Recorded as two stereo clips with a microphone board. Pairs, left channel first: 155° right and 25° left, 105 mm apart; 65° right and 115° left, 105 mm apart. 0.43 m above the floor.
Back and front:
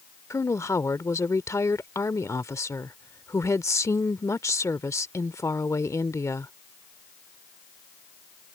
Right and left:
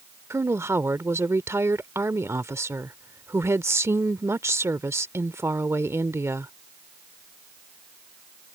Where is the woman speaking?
160° left.